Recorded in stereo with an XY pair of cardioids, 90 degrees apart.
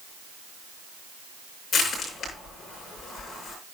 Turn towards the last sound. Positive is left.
turn(degrees=65)